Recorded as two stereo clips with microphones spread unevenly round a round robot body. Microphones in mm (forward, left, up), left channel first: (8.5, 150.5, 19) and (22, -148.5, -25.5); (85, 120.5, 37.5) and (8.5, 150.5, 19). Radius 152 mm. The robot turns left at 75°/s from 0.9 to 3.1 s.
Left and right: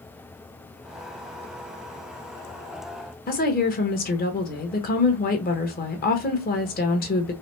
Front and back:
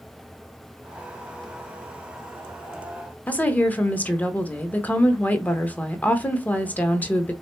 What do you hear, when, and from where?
3.3 s a woman speaking: 55° left, 0.9 m